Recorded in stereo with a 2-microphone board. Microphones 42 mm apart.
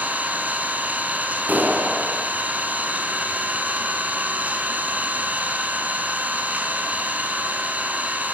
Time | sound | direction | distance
0.0 | an engine running | 35° right (ahead or behind) | 5.5 m
1.5 | a clap | 45° right (ahead or behind) | 7 m